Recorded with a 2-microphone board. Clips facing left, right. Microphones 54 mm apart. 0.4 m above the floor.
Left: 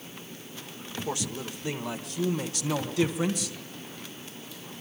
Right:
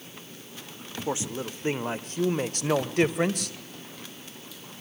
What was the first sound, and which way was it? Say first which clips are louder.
A man speaking: right 3 dB; 25° right (ahead or behind).